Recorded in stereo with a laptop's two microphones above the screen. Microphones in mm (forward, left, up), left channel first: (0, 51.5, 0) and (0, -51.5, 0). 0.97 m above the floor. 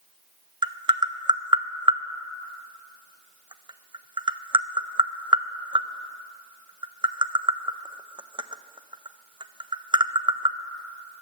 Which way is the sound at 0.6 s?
50° right (ahead or behind).